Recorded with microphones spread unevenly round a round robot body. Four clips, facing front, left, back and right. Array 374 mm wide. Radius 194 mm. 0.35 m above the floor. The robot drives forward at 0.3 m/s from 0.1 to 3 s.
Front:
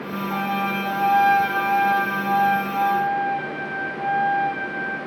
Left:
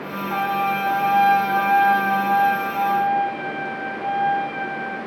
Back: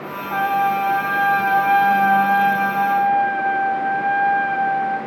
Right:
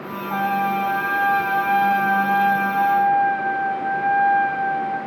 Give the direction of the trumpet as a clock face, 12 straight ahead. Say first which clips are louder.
Right 1 dB, back 7 dB; 12 o'clock.